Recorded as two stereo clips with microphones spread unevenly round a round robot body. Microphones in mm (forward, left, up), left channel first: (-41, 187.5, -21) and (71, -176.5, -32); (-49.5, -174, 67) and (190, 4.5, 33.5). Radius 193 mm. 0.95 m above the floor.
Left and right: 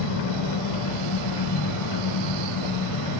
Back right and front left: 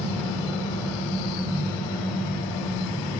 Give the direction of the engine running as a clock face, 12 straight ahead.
8 o'clock.